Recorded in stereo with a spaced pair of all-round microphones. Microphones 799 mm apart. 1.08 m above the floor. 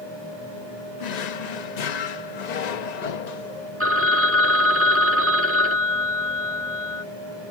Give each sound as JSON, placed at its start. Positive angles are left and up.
{"t": 1.0, "sound": "a drawer", "side_deg": 60}
{"t": 3.8, "sound": "a phone ringing", "side_deg": -15}